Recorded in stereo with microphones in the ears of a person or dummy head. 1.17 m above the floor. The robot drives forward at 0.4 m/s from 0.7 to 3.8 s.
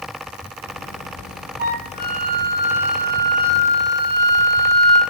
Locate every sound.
1.6 s a flute: 55° right (ahead or behind), 2.5 m; by 5.0 s 70° right (ahead or behind), 2 m